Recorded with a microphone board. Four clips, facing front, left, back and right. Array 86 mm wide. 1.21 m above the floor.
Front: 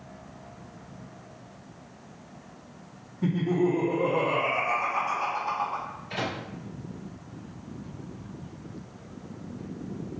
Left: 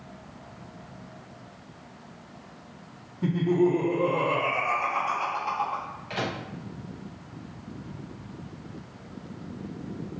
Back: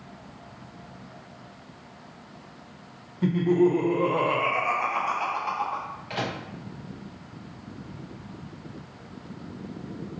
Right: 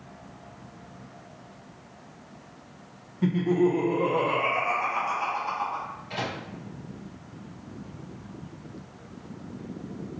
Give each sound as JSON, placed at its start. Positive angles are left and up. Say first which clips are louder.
{"t": 3.2, "sound": "laughter", "louder": "even, back 4 dB", "azimuth_deg": -125, "distance_m": 1.3}
{"t": 6.1, "sound": "a microwave", "louder": "left 2 dB, back 1 dB", "azimuth_deg": 145, "distance_m": 1.1}